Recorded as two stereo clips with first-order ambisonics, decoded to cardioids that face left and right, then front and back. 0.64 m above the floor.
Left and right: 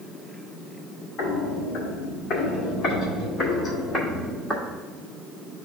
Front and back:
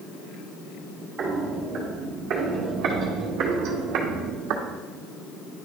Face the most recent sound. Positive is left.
turn(degrees=175)